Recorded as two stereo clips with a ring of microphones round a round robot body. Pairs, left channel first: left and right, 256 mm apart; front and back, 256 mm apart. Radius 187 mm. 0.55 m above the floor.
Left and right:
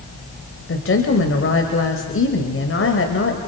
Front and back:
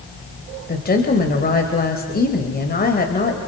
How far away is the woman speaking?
About 2.5 m.